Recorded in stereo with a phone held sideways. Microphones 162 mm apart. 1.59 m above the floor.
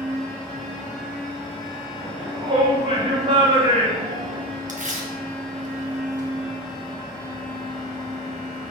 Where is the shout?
45° right (ahead or behind), 1.1 m.